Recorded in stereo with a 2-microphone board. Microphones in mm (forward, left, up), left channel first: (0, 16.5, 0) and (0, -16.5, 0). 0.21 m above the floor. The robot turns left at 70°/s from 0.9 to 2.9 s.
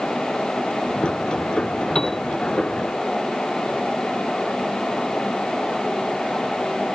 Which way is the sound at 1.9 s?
20° left (ahead or behind).